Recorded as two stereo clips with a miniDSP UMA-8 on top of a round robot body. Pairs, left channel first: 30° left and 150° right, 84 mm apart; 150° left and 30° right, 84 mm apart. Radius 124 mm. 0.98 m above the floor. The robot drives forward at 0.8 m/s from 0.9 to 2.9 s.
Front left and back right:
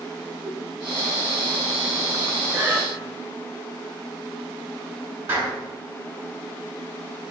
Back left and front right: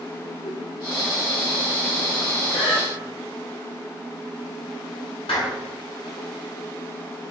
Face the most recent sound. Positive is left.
turn(degrees=145)